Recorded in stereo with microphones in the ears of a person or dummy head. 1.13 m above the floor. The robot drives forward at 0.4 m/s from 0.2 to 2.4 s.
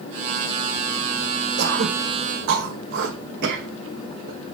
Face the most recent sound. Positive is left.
turn(degrees=-55)  # may be behind; listen again after turning